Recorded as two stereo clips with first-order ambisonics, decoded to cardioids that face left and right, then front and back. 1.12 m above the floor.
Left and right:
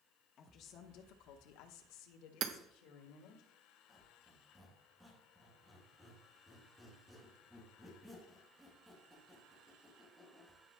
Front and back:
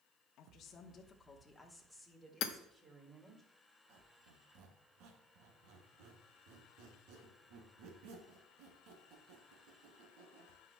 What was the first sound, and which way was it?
A woman speaking, 40° left.